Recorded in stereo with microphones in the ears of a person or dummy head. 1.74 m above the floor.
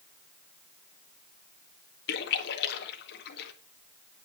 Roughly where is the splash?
Left.